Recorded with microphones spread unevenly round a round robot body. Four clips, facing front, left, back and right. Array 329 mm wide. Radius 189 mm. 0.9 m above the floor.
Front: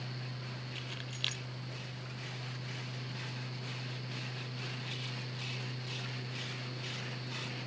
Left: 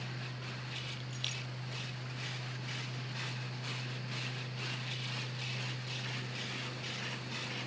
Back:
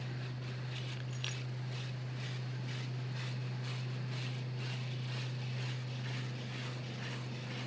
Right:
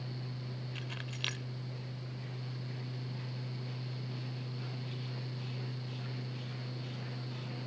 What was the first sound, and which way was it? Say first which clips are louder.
Keys jangling: right 2 dB, even; 65° right.